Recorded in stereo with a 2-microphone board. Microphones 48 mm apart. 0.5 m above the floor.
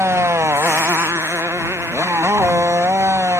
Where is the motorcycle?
60° right (ahead or behind); by 3.4 s 65° right (ahead or behind).